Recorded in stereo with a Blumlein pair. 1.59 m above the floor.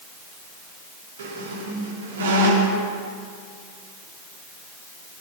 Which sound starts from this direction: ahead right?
A squeak, at 1.2 s.